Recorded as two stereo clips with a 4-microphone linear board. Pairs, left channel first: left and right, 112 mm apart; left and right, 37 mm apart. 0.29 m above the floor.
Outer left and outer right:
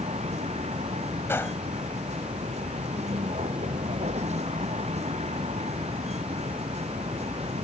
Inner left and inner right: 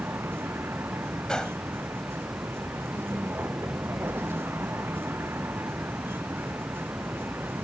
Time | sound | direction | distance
0.0 | a vehicle | 90° right | ?
1.3 | a gunshot | 20° left (ahead or behind) | ?